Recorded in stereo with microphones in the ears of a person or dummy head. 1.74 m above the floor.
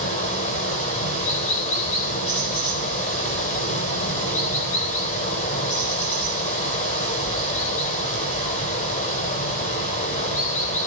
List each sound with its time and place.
0.0 s running water: 45° left (ahead or behind), 7 m